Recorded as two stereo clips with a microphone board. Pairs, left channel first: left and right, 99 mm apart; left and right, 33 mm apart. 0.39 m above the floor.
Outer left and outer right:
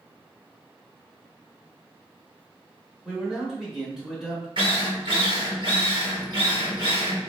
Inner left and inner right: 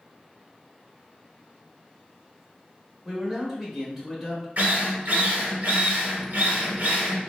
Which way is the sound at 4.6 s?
55° right (ahead or behind).